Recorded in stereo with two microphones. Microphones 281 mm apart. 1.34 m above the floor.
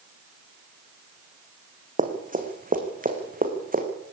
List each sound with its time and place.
2.0 s running footsteps: 30° right (ahead or behind), 3.5 m